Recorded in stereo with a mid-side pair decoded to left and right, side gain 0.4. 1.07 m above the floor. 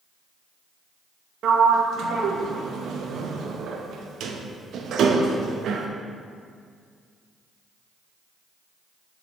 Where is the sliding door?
70° right, 0.7 m.